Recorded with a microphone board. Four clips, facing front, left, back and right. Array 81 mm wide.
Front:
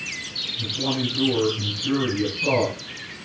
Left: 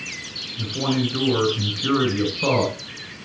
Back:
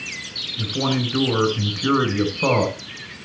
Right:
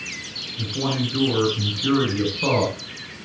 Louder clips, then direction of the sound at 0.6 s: Left 2 dB, back 3 dB; 175° left.